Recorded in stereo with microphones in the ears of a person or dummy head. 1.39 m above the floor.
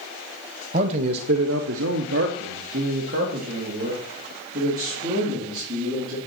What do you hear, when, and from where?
0.7 s a man speaking: 35° right (ahead or behind), 0.9 m; by 6.2 s 40° right (ahead or behind), 4 m